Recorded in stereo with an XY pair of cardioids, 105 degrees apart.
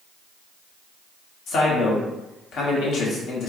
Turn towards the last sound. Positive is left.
turn(degrees=70)